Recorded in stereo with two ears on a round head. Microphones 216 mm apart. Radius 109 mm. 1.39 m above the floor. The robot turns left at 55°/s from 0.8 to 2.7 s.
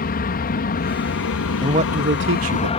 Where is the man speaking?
20° right; by 2.7 s 80° right.